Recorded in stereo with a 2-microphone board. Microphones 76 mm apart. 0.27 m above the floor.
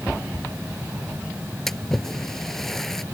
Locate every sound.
1.7 s a splash: 5° left (ahead or behind)